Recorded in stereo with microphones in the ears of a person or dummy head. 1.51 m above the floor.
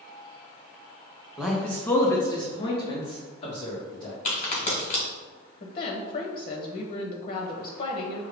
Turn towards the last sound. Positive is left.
turn(degrees=45)  # may be behind; listen again after turning